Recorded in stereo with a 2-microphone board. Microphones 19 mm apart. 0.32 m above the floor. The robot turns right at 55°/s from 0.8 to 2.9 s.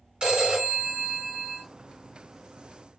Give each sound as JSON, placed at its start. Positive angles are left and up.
{"t": 0.2, "sound": "a phone ringing", "azimuth_deg": -45, "distance_m": 2.5}